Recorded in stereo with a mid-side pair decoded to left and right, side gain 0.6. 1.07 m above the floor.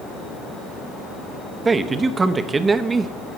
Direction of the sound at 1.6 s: 25° right.